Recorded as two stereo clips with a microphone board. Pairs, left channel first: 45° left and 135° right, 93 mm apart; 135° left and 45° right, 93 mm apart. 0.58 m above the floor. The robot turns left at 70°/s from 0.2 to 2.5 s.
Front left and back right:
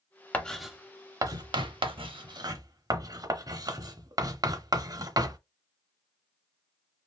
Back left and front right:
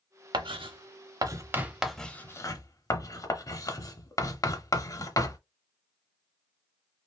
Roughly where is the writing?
Ahead right.